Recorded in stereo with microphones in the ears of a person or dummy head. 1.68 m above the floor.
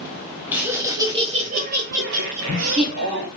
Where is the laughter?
10° right (ahead or behind), 1.1 m; by 3.3 s 70° right (ahead or behind), 1.2 m.